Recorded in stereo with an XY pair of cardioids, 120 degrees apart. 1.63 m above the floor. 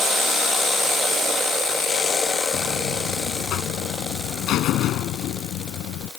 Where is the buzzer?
70° left.